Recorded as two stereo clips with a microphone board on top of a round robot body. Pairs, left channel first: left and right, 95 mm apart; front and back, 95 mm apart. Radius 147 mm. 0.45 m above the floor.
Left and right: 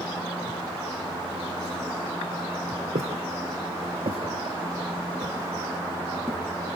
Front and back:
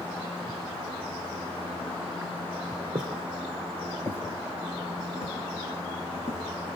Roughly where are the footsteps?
Right.